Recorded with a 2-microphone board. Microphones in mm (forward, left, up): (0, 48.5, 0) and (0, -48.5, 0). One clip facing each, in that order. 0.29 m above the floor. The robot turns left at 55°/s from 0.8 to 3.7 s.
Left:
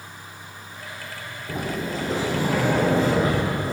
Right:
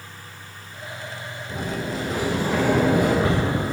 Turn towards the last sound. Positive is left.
turn(degrees=-50)